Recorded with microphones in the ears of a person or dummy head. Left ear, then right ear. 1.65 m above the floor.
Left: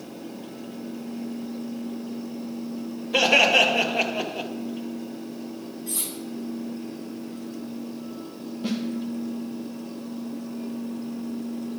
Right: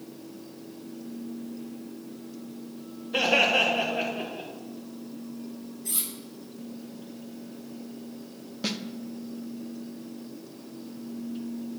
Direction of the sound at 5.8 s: 75° right (ahead or behind).